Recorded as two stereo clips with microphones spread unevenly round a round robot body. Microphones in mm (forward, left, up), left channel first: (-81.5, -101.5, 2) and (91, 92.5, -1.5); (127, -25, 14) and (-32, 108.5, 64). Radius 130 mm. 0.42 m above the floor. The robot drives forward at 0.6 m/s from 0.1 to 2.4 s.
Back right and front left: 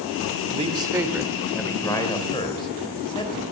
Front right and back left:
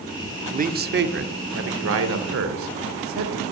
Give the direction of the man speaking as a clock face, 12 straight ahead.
9 o'clock.